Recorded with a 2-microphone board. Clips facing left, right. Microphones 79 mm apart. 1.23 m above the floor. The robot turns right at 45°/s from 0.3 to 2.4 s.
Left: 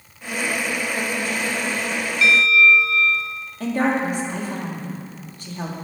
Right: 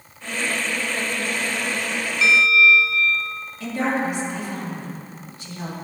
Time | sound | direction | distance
2.2 | a bell | 20° right (ahead or behind) | 0.8 m
3.6 | a woman speaking | 50° left (ahead or behind) | 3 m